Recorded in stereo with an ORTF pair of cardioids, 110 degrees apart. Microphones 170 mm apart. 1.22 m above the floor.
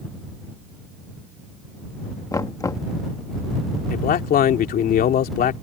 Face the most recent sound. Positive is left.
turn(degrees=60)